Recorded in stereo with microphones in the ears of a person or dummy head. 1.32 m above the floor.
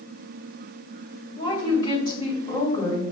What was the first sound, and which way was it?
A woman speaking, 20° left (ahead or behind).